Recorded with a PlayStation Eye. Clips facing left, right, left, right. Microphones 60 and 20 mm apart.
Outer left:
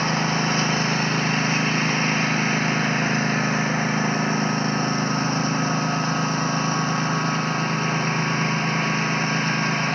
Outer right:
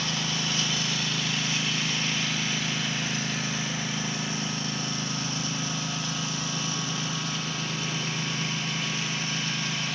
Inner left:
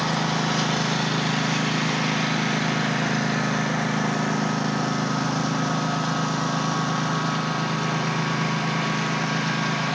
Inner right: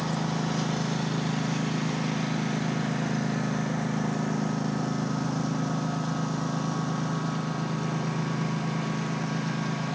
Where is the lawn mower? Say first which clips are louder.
Outer left 9 dB, inner left 6 dB; 40° left (ahead or behind).